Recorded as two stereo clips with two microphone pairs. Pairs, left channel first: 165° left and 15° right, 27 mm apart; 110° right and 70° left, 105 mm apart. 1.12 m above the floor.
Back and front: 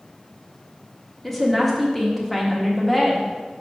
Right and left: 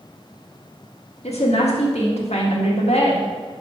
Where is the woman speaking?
110° right, 1.6 m.